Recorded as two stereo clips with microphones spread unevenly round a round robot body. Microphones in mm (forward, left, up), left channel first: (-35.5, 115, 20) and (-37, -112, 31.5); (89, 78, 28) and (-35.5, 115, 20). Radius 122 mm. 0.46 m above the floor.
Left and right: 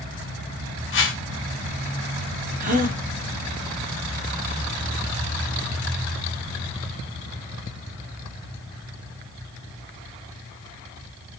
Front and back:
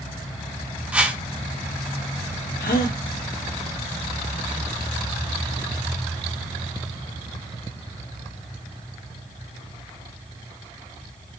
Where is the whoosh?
90° left, 1.7 m.